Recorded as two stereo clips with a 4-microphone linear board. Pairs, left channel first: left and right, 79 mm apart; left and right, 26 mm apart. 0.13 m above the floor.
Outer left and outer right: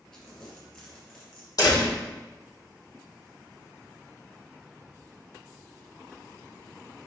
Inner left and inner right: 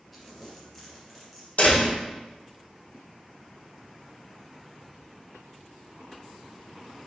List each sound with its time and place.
0.1 s crumpling: 5° left (ahead or behind), 3 m
1.6 s a door slam: 50° left (ahead or behind), 3.5 m